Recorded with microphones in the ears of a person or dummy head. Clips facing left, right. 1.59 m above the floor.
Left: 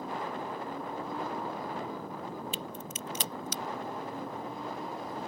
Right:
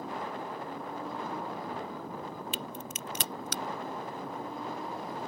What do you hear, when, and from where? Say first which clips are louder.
2.5 s a crack: even; 60° right (ahead or behind)